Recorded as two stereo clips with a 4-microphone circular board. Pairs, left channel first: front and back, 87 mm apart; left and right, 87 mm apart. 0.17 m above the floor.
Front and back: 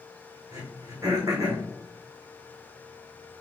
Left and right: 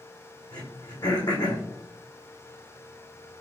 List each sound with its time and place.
0.5 s throat clearing: 130° left, 2 m